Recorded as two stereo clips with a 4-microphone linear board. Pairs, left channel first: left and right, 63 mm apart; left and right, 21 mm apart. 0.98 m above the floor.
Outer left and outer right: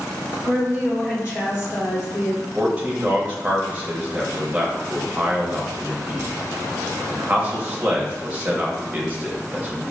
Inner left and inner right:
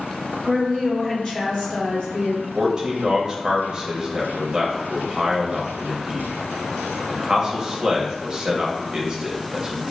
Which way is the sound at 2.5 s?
20° right (ahead or behind).